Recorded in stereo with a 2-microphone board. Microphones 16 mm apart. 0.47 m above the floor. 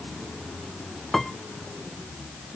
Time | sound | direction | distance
1.1 | a piano | 20° left (ahead or behind) | ?